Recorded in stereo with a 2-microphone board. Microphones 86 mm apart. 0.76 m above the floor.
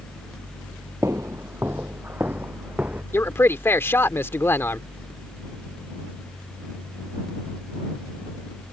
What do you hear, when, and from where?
1.0 s footsteps: 35° right (ahead or behind); by 3.0 s 15° right (ahead or behind)
3.1 s a man speaking: 25° left (ahead or behind)